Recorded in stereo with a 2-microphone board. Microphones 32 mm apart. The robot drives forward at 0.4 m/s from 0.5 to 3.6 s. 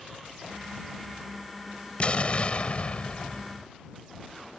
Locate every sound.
2.0 s an explosion: 40° left (ahead or behind)